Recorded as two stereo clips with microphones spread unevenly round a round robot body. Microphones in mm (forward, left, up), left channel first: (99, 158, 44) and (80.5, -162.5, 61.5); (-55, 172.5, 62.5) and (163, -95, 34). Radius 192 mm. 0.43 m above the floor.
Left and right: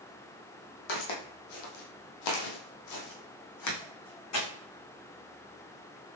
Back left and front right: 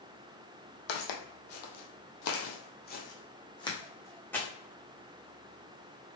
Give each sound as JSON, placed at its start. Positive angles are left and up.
{"t": 0.9, "sound": "footsteps", "azimuth_deg": 130, "distance_m": 1.1}